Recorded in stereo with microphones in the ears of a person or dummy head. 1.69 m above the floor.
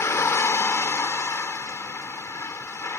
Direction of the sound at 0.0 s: 10° left (ahead or behind).